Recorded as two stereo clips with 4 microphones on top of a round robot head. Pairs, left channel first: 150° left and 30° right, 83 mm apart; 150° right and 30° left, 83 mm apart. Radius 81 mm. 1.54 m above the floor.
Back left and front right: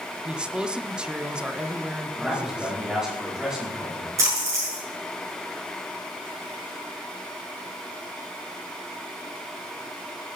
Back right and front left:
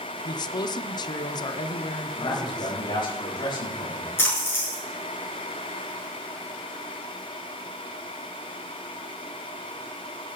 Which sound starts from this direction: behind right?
A man speaking, at 2.1 s.